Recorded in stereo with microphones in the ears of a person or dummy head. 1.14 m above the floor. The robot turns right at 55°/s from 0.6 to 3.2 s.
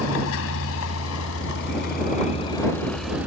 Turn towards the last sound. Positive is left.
turn(degrees=-5)  # may be behind; listen again after turning